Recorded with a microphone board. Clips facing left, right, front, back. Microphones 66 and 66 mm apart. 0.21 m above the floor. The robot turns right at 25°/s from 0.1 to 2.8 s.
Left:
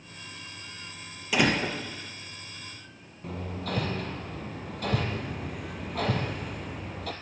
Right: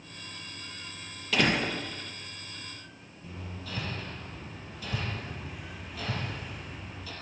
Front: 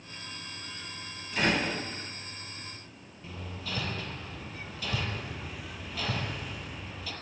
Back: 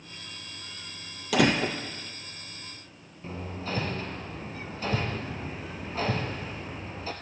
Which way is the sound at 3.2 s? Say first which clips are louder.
Left 8 dB, back 5 dB; 120° left.